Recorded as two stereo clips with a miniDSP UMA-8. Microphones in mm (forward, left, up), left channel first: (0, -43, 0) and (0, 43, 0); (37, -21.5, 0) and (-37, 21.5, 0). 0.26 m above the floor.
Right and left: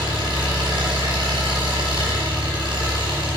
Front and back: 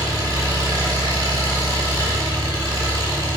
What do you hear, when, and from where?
0.0 s an engine running: 105° left, 3.5 m